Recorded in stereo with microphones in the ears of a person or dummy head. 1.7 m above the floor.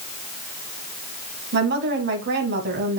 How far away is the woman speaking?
About 1.8 m.